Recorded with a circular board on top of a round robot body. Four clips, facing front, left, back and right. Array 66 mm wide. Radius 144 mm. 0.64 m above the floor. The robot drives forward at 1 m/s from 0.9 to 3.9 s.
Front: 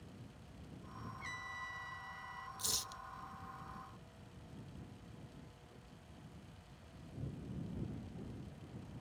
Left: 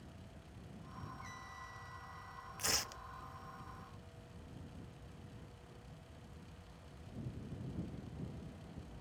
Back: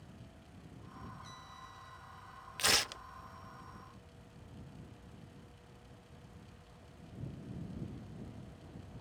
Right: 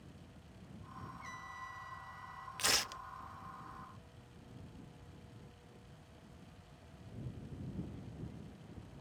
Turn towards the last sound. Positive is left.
turn(degrees=-170)